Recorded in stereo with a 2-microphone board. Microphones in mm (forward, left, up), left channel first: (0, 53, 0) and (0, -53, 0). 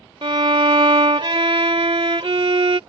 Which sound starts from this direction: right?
A violin, at 0.2 s.